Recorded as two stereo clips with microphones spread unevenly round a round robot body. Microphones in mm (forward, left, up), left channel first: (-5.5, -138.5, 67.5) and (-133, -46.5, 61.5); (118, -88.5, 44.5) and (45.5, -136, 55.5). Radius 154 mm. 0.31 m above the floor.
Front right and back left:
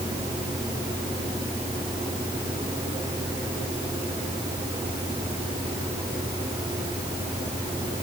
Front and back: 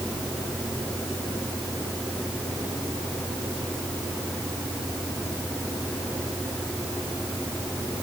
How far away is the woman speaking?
I don't hear a woman speaking.